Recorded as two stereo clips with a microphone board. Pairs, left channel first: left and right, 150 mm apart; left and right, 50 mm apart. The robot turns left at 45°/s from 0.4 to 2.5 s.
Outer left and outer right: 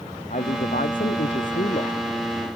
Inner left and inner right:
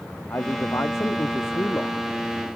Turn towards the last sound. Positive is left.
turn(degrees=20)